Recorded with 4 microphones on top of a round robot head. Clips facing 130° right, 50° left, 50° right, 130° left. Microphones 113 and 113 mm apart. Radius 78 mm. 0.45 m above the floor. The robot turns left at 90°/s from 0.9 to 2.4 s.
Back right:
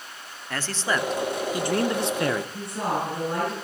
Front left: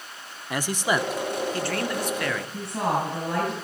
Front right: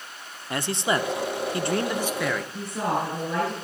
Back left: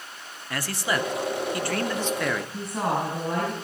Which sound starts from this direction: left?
A woman speaking, at 2.5 s.